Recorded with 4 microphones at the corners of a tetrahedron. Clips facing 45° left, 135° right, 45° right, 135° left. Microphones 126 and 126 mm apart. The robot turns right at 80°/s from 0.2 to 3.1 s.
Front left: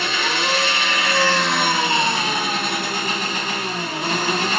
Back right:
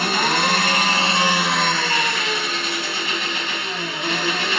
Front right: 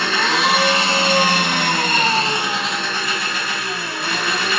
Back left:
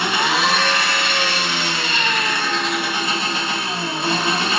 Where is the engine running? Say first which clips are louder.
Back right 3 dB, even; 155° right, 1.1 m; by 4.6 s 75° left, 1.1 m.